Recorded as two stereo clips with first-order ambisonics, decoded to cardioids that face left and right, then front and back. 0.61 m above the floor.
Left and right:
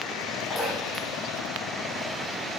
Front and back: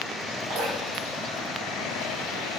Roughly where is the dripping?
Behind.